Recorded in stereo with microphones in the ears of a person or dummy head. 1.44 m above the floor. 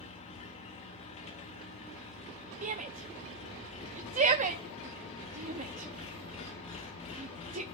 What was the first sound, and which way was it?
An engine running, 35° left (ahead or behind).